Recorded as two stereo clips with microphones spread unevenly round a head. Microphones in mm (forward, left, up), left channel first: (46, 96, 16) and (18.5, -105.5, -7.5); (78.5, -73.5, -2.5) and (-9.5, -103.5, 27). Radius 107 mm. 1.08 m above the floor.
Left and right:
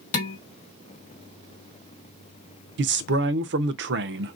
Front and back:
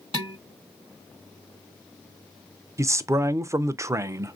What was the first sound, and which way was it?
Dishes clattering, 140° left.